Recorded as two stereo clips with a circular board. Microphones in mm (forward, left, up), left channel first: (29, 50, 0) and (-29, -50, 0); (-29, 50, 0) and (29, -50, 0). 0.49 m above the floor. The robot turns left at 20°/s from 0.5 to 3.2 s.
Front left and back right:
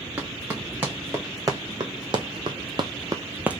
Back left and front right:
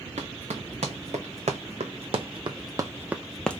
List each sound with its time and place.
0.2 s running footsteps: 40° right, 1.9 m; by 3.6 s 165° left, 0.5 m